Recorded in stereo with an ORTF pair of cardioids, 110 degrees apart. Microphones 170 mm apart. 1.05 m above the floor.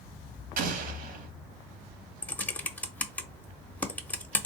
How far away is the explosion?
About 0.9 m.